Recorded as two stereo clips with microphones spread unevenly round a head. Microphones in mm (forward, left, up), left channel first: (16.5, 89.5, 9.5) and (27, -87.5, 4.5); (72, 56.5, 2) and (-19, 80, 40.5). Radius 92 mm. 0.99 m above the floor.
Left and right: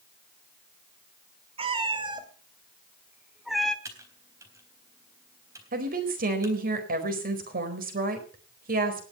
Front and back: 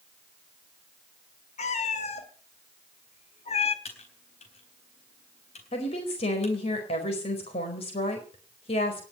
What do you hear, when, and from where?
1.6 s a cat meowing: 25° right, 2 m; by 3.8 s 10° left, 1.5 m
3.9 s typing on a keyboard: 10° right, 3.5 m
5.7 s a woman speaking: 45° right, 4.5 m